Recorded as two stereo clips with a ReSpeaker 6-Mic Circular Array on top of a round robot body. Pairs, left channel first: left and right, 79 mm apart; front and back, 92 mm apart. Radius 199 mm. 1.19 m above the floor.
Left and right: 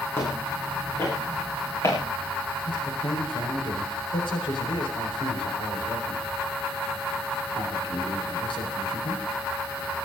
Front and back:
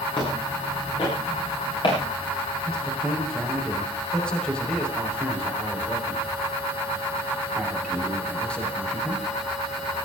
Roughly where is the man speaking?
Left.